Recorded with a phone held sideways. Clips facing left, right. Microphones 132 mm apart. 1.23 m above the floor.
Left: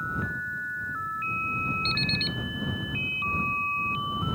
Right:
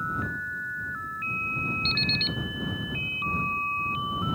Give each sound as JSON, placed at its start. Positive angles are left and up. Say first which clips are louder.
{"t": 1.9, "sound": "an alarm clock", "louder": "even", "side_deg": 40}